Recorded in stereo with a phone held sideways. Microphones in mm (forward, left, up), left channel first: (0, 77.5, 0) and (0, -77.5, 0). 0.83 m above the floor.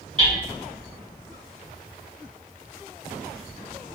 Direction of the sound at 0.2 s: 35° right (ahead or behind).